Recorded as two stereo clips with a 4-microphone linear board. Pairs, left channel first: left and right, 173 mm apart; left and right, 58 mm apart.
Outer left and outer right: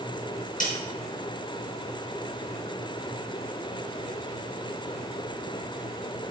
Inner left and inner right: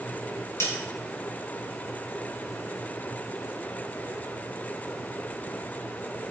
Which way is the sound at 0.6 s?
50° left (ahead or behind).